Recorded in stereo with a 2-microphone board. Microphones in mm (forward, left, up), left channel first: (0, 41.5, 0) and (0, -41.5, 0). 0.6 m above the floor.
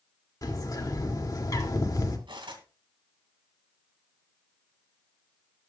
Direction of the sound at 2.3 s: 85° right.